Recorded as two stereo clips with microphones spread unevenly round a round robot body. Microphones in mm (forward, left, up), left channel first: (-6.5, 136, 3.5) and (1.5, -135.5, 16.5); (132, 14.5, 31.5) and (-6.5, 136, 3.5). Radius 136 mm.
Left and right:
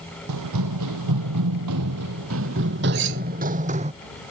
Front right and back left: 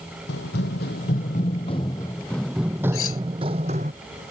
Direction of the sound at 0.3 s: 70° right.